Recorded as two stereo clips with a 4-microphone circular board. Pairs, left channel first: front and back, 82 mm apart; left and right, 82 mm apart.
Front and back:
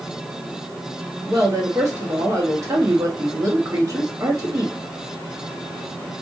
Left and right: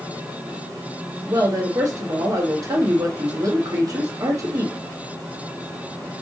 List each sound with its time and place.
1.3 s a woman speaking: 130° right, 1.2 m